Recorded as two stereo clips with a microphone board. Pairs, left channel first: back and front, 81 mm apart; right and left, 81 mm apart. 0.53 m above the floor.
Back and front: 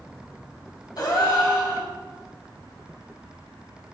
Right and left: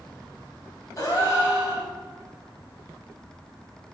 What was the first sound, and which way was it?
A gasp, 140° right.